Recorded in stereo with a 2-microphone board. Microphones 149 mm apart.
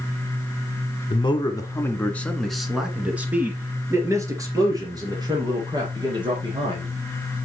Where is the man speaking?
35° left (ahead or behind), 1.5 m; by 6.9 s 35° right (ahead or behind), 5 m.